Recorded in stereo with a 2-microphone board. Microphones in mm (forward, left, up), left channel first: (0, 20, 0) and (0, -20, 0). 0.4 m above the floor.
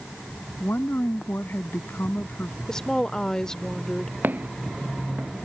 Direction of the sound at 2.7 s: 15° left (ahead or behind).